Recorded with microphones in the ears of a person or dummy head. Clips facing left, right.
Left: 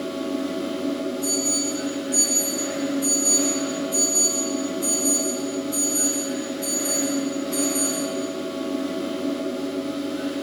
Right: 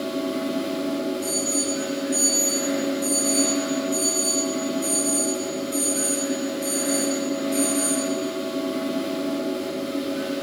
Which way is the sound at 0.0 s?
20° right (ahead or behind).